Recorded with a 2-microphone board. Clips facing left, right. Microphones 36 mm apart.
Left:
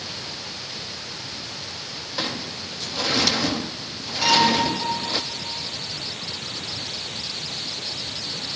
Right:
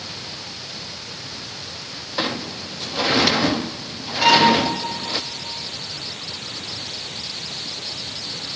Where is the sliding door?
25° right (ahead or behind), 0.5 m.